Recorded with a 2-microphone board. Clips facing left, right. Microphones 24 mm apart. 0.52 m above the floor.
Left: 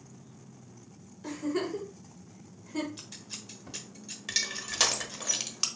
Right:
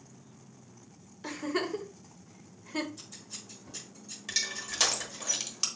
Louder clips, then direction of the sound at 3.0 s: Left 2 dB; 55° left (ahead or behind).